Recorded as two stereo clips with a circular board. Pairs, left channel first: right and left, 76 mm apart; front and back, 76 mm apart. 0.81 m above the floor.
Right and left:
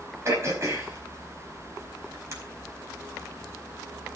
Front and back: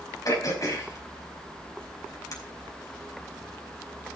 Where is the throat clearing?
35° left, 4.5 m.